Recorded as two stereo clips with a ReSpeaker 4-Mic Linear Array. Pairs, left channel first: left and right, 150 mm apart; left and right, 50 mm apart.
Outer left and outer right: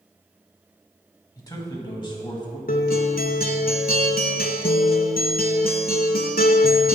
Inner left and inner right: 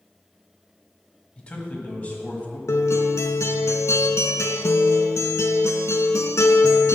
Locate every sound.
1.4 s a man speaking: 25° left (ahead or behind), 1.2 m; by 2.6 s 35° left (ahead or behind), 1.7 m
2.7 s a guitar: 80° left, 0.6 m